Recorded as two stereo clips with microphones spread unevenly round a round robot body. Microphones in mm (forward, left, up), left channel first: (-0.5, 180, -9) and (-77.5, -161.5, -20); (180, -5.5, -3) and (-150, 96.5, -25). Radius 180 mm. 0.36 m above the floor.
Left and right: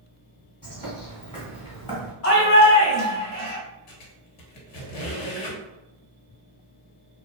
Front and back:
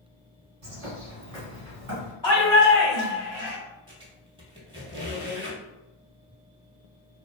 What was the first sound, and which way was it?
A bird, 150° left.